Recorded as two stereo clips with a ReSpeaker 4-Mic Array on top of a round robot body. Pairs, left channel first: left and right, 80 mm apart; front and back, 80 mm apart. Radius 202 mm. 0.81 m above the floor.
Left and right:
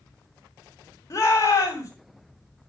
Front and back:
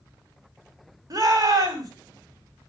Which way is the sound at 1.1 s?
140° left.